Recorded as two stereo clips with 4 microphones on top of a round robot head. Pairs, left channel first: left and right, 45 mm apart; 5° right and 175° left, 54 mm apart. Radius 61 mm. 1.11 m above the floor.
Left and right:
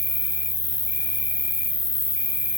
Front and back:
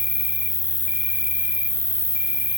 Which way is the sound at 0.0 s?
105° left.